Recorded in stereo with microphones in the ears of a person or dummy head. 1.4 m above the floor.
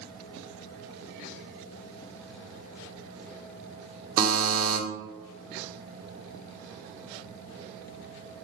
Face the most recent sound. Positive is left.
turn(degrees=-45)  # may be behind; listen again after turning